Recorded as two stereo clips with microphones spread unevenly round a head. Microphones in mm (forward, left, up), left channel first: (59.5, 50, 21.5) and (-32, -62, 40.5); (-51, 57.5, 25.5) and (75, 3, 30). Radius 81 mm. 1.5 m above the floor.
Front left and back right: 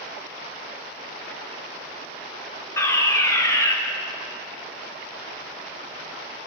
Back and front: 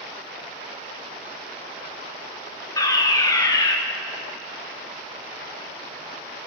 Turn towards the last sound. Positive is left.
turn(degrees=105)